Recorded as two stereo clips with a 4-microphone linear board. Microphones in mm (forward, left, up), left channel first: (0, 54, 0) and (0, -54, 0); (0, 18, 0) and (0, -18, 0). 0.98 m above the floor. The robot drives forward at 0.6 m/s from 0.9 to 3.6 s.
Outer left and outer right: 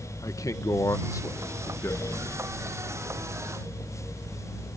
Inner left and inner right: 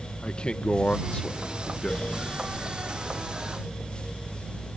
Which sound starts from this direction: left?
A man speaking, at 0.2 s.